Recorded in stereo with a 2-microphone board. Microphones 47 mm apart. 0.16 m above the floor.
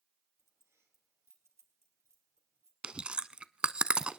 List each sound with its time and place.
0.4 s keys jangling: 70° right (ahead or behind), 3 m
2.8 s chewing: 20° right (ahead or behind), 0.5 m